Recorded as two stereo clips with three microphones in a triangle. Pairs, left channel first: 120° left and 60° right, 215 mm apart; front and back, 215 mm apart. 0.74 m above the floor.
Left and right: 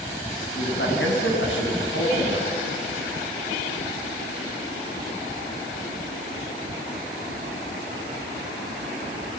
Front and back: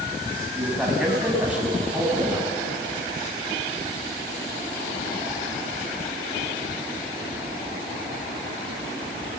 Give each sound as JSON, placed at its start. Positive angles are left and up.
{"t": 0.6, "sound": "a man speaking", "azimuth_deg": 95, "distance_m": 6.5}